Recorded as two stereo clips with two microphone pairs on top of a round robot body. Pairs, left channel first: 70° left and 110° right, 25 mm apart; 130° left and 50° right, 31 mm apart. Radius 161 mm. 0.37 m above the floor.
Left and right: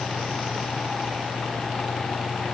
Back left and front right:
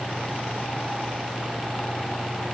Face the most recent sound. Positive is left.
No sound to turn to.